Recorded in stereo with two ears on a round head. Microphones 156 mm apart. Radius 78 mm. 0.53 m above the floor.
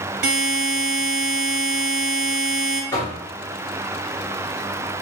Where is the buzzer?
60° right (ahead or behind), 1.3 m.